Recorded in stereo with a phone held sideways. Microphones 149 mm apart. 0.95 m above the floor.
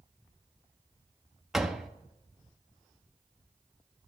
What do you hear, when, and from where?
1.5 s a door slam: centre (ahead or behind), 0.6 m